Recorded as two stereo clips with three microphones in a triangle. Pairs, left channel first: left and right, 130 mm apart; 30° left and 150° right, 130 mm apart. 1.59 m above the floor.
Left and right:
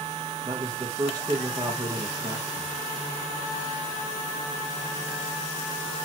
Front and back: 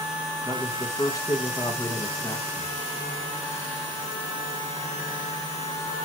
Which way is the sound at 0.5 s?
30° right.